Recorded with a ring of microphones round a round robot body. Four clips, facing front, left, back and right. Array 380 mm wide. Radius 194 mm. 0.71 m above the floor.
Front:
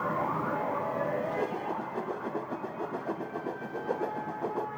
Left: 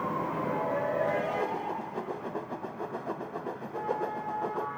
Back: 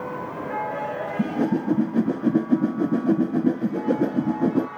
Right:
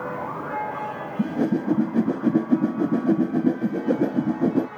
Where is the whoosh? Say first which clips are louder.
Right 8 dB, back 8 dB; 135° right.